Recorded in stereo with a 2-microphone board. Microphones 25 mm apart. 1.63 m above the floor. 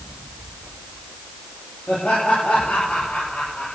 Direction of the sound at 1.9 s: 90° left.